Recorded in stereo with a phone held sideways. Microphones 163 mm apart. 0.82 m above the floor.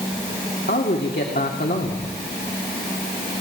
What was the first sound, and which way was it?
A man speaking, 70° left (ahead or behind).